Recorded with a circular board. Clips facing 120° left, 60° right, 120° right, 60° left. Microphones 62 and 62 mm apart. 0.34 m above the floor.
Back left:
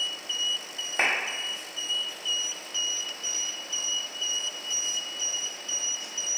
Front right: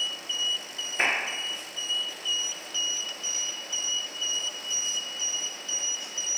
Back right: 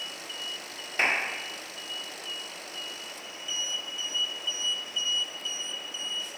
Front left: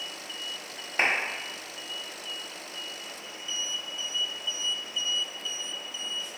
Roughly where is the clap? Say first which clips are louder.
Even, front left 1 dB; behind left.